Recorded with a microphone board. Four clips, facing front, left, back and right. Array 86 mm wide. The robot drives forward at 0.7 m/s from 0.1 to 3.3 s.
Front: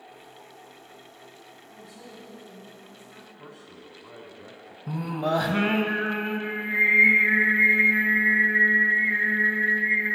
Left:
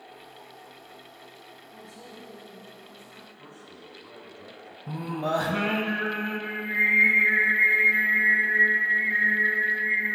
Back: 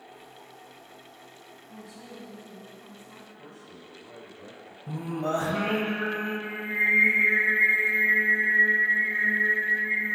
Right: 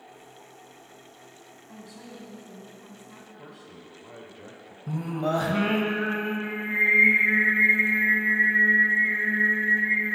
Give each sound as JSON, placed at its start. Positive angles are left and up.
{"t": 1.7, "sound": "a woman speaking", "azimuth_deg": -95, "distance_m": 1.8}
{"t": 3.4, "sound": "a man speaking", "azimuth_deg": -80, "distance_m": 1.0}
{"t": 4.9, "sound": "singing", "azimuth_deg": 0, "distance_m": 0.8}